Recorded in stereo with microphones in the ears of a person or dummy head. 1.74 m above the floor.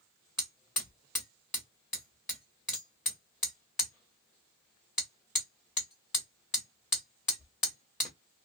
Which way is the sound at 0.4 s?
5° left (ahead or behind).